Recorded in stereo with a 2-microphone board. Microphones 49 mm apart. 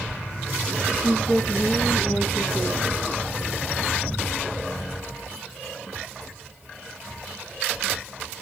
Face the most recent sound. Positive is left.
turn(degrees=5)  # may be behind; listen again after turning